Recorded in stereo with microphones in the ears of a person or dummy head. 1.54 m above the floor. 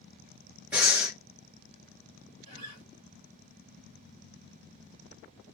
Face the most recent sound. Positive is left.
turn(degrees=-40)  # may be behind; listen again after turning